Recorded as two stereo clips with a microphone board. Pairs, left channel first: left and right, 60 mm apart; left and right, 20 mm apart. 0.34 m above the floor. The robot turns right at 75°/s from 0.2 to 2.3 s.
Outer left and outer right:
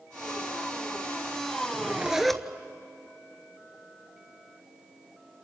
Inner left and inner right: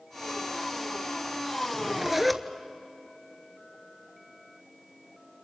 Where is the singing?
No singing in this recording.